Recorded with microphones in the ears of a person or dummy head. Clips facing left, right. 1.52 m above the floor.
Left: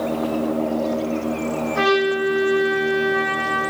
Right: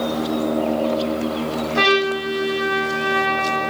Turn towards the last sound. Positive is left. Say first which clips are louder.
# left 1 dB
turn(degrees=-50)  # may be behind; listen again after turning